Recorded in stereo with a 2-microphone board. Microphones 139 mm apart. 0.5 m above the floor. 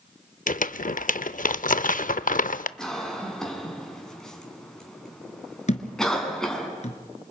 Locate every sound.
0.5 s crumpling: 75° left (ahead or behind), 0.5 m
2.8 s a cough: 5° left (ahead or behind), 5 m
5.7 s a thud: 55° left (ahead or behind), 1.9 m